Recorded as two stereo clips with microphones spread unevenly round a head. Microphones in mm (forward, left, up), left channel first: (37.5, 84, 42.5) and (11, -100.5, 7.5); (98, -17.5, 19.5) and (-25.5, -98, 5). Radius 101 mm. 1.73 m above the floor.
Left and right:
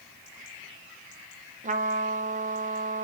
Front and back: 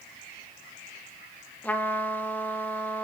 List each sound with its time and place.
1.6 s a trumpet: 45° right, 1.7 m